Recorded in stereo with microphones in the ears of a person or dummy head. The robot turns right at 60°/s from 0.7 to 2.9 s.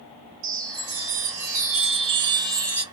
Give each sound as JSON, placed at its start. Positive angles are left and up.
{"t": 0.4, "sound": "a chime", "azimuth_deg": -130, "distance_m": 1.1}